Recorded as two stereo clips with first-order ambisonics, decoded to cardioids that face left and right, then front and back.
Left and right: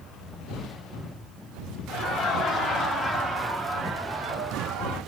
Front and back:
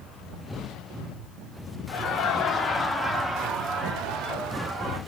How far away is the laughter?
About 1.1 m.